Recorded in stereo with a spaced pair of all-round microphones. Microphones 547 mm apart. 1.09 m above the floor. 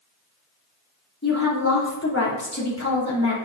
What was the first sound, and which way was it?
A woman speaking, 25° left (ahead or behind).